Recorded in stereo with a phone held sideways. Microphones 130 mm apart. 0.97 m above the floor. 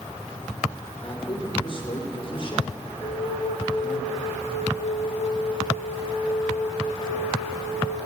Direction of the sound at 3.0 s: 55° left (ahead or behind).